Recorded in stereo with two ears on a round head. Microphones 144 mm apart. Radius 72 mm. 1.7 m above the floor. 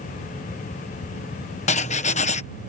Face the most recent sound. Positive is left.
turn(degrees=45)  # may be behind; listen again after turning